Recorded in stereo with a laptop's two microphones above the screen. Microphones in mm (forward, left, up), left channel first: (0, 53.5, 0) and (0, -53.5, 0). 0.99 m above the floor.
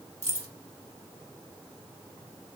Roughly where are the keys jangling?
Right.